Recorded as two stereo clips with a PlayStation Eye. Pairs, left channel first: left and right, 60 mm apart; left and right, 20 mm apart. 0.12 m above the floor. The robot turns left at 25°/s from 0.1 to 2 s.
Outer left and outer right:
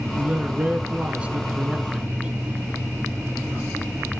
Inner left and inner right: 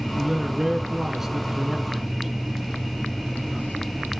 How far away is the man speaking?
About 1.1 m.